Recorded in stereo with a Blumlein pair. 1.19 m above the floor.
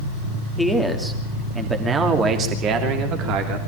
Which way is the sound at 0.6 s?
Straight ahead.